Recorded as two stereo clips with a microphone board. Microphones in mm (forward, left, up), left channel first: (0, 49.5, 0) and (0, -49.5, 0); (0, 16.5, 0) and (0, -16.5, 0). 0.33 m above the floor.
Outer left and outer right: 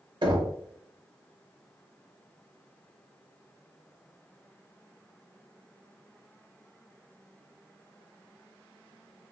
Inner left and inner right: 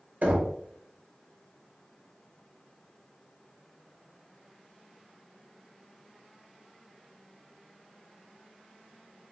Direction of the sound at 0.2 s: 55° right (ahead or behind).